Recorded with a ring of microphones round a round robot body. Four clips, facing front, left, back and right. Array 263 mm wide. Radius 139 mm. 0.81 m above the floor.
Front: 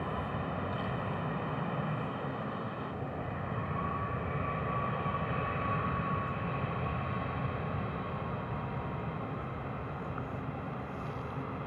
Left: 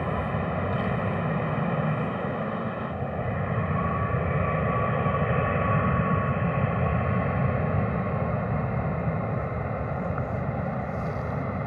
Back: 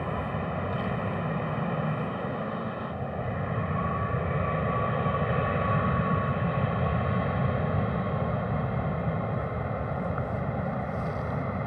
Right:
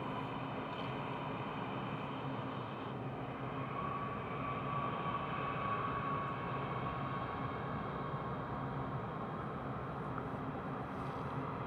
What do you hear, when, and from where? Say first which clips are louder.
0.0 s an aircraft: left 12 dB, back 5 dB; 110° left; by 11.7 s 130° left